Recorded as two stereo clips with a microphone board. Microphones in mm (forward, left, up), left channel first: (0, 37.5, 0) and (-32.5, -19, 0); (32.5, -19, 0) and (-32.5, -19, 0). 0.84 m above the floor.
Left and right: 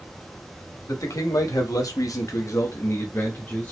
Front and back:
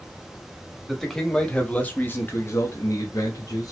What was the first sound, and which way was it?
A man speaking, 85° left.